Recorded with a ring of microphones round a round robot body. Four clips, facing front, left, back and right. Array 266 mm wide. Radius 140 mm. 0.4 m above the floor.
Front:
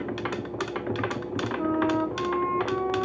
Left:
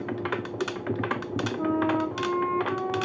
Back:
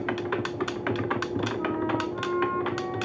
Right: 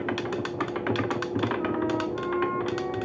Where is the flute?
35° left, 1.3 m.